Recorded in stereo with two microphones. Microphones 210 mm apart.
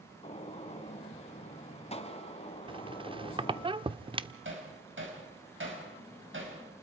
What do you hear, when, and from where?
0.2 s a gunshot: 30° left (ahead or behind), 1.8 m
2.7 s a squeak: 25° right (ahead or behind), 0.6 m
4.5 s hammering: 60° right (ahead or behind), 5 m